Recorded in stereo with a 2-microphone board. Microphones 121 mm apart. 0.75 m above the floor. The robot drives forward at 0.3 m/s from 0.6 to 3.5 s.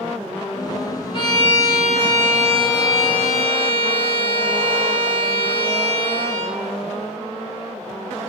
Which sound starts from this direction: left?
A violin, at 1.1 s.